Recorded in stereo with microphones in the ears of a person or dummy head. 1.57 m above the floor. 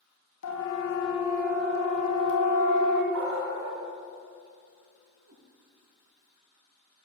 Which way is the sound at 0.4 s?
75° left (ahead or behind).